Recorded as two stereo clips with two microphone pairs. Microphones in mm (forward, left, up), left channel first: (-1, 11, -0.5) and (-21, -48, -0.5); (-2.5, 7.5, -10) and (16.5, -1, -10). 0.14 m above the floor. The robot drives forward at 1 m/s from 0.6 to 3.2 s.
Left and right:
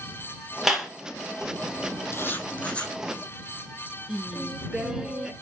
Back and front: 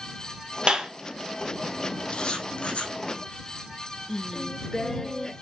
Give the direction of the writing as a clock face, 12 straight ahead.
8 o'clock.